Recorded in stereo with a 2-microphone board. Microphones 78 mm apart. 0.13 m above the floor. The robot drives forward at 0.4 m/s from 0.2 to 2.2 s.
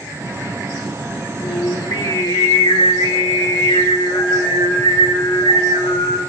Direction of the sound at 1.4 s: 80° left.